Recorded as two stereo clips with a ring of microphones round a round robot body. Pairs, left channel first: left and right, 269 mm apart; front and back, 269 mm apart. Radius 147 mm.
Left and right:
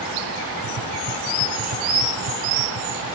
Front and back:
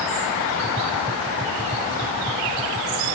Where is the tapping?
110° right.